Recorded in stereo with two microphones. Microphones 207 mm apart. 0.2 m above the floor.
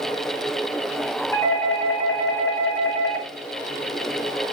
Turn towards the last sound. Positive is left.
turn(degrees=15)  # may be behind; listen again after turning